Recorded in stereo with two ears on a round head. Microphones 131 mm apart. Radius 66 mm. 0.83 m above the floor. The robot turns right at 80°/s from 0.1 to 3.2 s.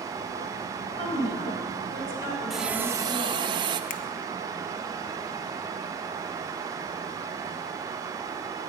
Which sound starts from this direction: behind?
A hiss, at 2.5 s.